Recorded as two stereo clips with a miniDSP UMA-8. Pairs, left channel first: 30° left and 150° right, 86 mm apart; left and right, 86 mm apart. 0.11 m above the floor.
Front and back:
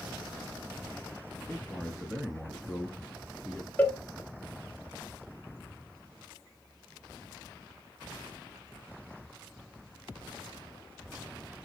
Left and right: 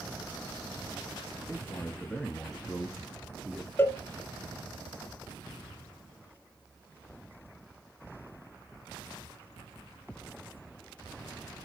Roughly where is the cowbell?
Left.